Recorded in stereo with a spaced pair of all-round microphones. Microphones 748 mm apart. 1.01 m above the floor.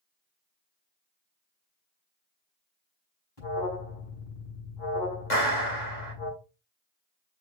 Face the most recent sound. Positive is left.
turn(degrees=60)  # may be behind; listen again after turning